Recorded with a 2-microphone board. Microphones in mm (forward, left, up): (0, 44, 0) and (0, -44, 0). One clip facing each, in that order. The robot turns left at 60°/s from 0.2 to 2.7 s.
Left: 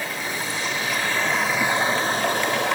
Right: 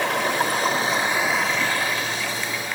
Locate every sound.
0.0 s running water: 110° right, 0.7 m; by 2.8 s 100° left, 0.7 m